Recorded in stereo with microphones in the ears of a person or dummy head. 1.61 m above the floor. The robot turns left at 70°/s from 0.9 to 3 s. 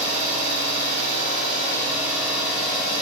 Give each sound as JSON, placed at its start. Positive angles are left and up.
{"t": 0.0, "sound": "an engine running", "azimuth_deg": -85, "distance_m": 1.0}